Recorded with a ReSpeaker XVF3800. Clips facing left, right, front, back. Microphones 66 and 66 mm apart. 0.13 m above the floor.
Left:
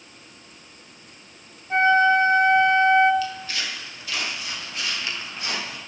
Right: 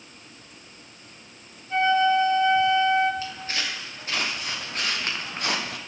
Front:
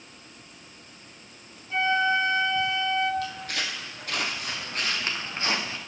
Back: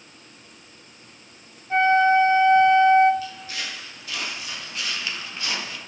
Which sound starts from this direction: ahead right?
Footsteps, at 3.2 s.